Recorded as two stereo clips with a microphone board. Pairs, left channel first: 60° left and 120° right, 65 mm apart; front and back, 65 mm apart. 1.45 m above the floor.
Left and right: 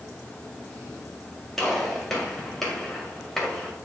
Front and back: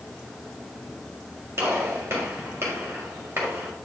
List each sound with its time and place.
1.6 s a gunshot: 145° left, 2.0 m